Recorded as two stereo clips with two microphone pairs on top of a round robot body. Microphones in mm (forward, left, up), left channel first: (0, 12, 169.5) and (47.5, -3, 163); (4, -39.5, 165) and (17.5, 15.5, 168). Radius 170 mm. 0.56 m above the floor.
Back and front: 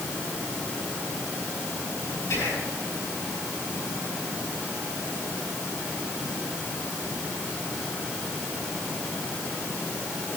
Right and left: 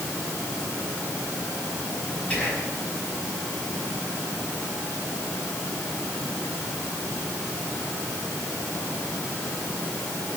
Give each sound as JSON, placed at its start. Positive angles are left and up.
{"t": 2.3, "sound": "whispering", "azimuth_deg": -175, "distance_m": 5.0}